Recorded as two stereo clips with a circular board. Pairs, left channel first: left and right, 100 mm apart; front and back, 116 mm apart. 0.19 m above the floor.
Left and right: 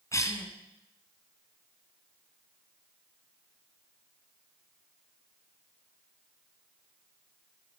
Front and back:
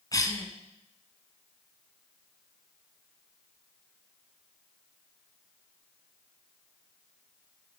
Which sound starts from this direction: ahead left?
A cough, at 0.1 s.